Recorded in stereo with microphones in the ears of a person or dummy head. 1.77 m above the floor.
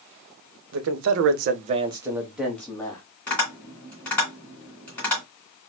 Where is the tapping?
5° left (ahead or behind), 2.5 m.